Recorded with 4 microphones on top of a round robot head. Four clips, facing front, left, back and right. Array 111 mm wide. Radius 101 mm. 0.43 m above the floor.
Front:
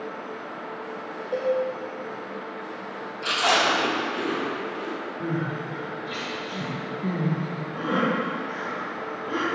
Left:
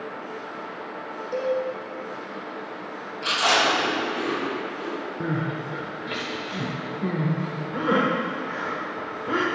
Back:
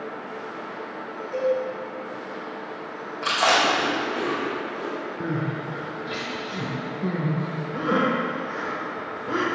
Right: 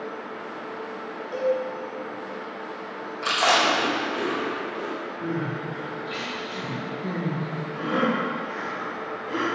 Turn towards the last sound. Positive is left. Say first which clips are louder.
# left 1 dB, even
turn(degrees=115)